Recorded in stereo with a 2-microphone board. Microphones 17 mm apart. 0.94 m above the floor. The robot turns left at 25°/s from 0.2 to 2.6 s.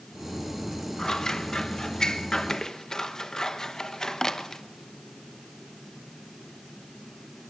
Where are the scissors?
40° left (ahead or behind), 1.1 m; by 4.6 s 35° left (ahead or behind), 1.1 m.